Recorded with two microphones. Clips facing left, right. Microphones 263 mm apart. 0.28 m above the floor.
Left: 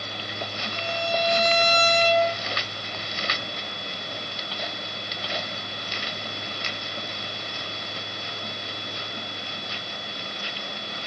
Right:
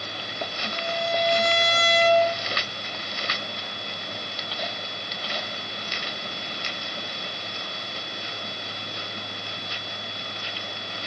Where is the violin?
70° right (ahead or behind), 2 m.